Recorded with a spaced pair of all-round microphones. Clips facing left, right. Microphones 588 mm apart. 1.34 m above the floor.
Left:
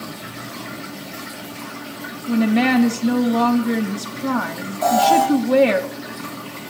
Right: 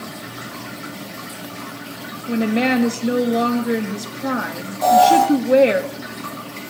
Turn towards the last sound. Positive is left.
turn(degrees=-55)  # may be behind; listen again after turning